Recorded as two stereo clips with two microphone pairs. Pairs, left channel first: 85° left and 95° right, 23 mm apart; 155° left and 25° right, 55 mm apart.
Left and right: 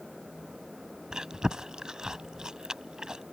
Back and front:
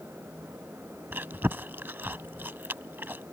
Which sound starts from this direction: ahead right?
Chewing, at 1.1 s.